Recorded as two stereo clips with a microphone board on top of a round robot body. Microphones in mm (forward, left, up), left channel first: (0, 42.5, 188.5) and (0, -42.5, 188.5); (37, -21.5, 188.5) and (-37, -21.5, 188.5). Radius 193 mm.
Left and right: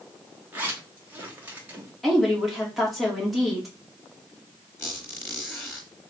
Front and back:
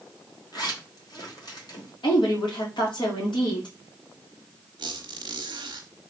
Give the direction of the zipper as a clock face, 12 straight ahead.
1 o'clock.